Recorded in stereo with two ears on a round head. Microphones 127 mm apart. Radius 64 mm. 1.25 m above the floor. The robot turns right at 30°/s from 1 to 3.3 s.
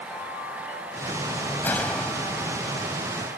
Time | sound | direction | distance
1.6 | a gunshot | 165° left | ?